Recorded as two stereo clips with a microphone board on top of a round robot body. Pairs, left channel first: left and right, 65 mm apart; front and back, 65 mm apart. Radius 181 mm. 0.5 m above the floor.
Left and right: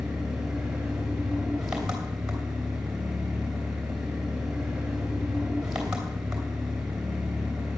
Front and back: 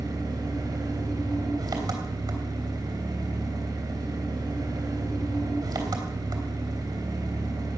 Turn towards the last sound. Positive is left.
turn(degrees=-170)